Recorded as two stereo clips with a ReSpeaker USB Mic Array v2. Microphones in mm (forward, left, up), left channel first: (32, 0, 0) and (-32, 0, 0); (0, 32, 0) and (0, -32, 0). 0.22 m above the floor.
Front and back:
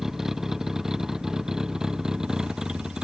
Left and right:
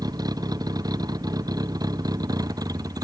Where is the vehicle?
95° right; by 3.0 s 100° right.